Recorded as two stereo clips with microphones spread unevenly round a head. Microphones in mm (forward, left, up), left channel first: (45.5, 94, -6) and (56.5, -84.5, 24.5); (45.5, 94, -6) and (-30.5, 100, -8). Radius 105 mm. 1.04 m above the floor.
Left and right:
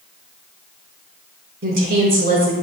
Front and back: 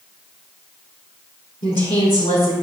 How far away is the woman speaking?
About 3.5 m.